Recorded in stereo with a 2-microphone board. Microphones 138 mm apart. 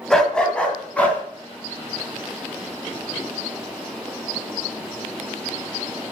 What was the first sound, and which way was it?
A dog barking, 5° left (ahead or behind).